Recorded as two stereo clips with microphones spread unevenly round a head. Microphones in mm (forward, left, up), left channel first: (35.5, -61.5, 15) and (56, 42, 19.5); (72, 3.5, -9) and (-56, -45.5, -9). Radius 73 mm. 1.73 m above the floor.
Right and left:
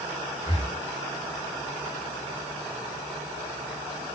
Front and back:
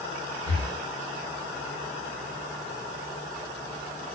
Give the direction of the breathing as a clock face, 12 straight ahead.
7 o'clock.